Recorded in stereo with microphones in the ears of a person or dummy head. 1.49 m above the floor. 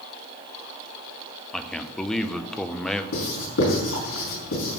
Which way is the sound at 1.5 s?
5° left (ahead or behind).